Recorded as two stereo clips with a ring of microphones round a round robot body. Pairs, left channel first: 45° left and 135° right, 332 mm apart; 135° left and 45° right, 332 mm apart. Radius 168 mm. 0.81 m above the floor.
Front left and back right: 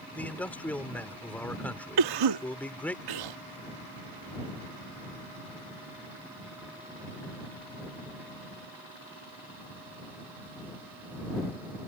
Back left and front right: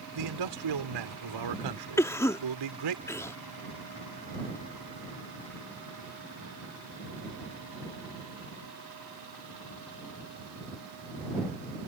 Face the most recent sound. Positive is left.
turn(degrees=-145)